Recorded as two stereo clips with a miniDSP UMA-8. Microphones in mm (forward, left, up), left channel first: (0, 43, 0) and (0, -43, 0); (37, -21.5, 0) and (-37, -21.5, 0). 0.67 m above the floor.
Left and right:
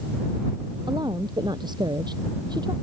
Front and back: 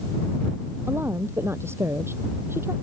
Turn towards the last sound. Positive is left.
turn(degrees=-125)